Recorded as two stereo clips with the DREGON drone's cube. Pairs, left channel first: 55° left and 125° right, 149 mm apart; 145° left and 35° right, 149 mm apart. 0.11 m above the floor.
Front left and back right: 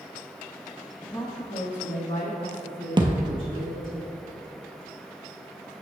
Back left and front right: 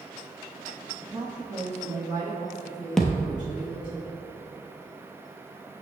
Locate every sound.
1.0 s a woman speaking: 60° left, 1.2 m; by 4.0 s 25° left, 4.5 m
3.0 s a thud: 125° right, 0.8 m